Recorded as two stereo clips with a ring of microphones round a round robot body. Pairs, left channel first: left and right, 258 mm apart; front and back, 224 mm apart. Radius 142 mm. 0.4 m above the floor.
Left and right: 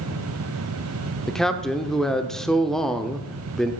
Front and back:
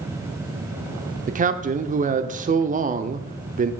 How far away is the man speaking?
About 0.8 m.